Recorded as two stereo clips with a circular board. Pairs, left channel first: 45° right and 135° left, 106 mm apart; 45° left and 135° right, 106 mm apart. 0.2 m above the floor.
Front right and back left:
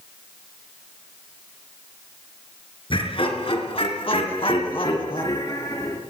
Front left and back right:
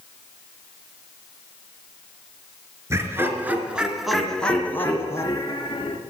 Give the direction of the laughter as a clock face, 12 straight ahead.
2 o'clock.